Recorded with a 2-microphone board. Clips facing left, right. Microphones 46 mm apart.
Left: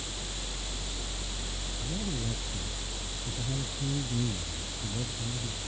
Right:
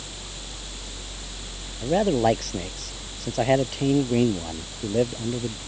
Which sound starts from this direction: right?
A man speaking, at 1.8 s.